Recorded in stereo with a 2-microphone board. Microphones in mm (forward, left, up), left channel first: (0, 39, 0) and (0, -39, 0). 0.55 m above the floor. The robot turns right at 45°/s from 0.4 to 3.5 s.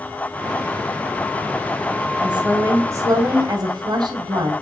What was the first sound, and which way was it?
A woman speaking, 170° right.